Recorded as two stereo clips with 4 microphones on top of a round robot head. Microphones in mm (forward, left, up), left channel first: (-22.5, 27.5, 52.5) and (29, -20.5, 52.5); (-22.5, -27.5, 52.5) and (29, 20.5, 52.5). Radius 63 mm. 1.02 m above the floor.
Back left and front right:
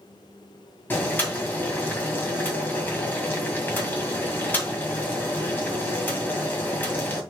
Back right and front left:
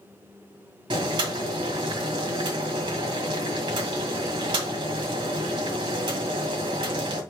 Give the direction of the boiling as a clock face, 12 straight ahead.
10 o'clock.